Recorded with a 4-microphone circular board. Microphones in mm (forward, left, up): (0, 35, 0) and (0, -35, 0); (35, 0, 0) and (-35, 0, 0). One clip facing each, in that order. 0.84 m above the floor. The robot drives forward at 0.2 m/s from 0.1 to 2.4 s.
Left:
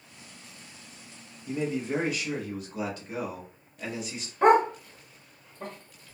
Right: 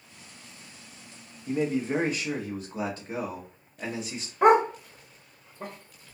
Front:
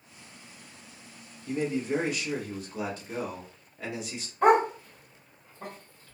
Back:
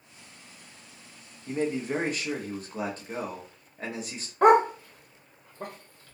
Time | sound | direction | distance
1.5 | a man speaking | 135° right | 0.9 m
4.4 | a dog barking | 170° right | 0.9 m